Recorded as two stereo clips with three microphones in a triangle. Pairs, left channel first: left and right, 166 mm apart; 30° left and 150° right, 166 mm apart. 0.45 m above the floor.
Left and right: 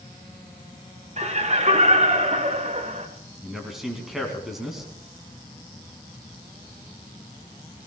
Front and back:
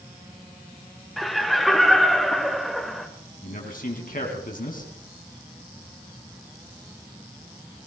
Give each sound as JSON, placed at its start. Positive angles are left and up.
{"t": 1.2, "sound": "laughter", "azimuth_deg": -60, "distance_m": 2.0}
{"t": 3.4, "sound": "a man speaking", "azimuth_deg": 0, "distance_m": 4.0}